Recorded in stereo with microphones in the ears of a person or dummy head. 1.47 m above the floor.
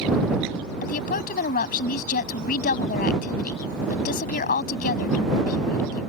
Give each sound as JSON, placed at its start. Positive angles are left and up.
{"t": 0.8, "sound": "a woman speaking", "side_deg": 45}